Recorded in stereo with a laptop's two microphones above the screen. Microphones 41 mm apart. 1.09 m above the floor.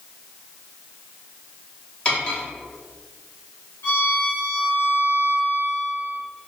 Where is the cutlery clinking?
25° left (ahead or behind), 1.1 m.